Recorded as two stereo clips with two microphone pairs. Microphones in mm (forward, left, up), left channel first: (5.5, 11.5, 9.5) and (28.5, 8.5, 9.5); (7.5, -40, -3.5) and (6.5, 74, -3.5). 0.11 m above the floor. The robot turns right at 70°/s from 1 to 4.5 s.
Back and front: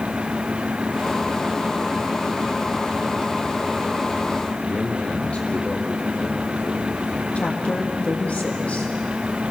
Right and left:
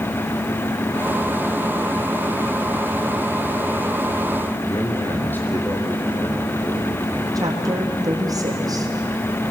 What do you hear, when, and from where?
4.6 s a man speaking: 160° right, 4.5 m
7.3 s a woman speaking: 145° left, 4.5 m